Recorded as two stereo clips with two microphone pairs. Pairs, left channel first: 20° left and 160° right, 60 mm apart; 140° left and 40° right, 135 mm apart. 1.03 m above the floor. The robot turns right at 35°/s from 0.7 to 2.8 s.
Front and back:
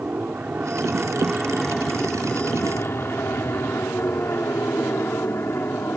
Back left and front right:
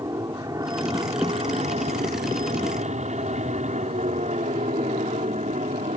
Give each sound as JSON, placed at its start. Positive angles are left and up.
{"t": 0.0, "sound": "an aircraft", "azimuth_deg": -100}